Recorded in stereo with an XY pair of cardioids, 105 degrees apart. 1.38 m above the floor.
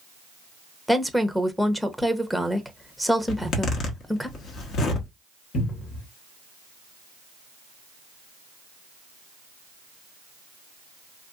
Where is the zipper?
65° left, 1.1 m.